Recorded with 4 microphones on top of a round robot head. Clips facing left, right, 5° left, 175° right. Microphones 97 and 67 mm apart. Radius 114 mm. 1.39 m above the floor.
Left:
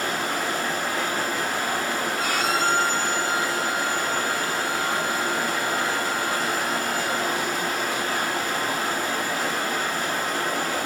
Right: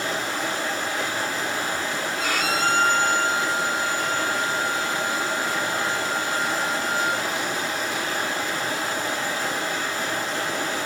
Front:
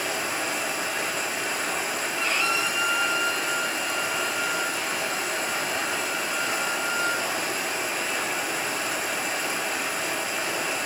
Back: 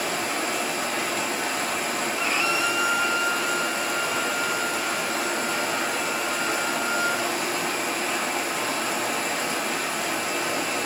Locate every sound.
0.0 s running water: 145° left, 5 m
2.2 s a violin: 90° right, 1.7 m